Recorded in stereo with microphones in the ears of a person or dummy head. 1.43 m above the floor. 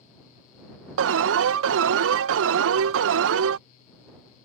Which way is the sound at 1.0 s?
75° right (ahead or behind).